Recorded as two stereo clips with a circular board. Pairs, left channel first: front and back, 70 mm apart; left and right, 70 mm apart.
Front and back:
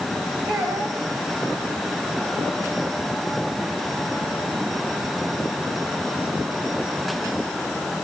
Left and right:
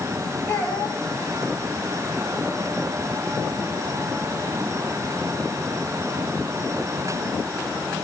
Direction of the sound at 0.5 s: 155° left.